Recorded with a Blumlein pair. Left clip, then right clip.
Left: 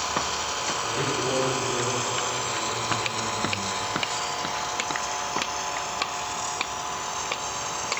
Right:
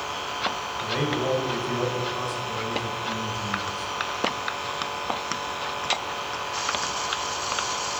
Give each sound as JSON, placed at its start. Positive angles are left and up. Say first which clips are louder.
{"t": 0.8, "sound": "a man speaking", "louder": "right 4 dB", "azimuth_deg": -40, "distance_m": 1.8}